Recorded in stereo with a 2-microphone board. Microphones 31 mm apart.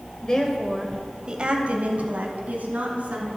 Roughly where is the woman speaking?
Left.